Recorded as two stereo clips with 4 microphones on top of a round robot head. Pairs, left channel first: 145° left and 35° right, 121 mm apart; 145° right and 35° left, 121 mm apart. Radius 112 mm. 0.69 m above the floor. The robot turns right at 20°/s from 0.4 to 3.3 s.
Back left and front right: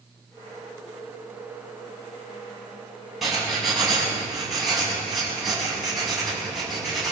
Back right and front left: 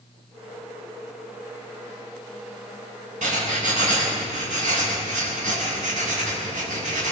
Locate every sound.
3.2 s writing: 50° left, 7.5 m; by 7.1 s 55° left, 7.5 m